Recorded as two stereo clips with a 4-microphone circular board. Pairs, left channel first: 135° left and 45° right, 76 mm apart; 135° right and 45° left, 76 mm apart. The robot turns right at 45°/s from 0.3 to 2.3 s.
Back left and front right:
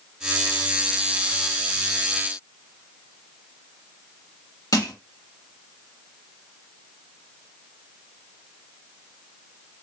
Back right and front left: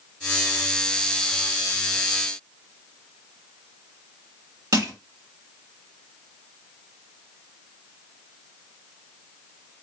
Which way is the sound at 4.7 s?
95° left.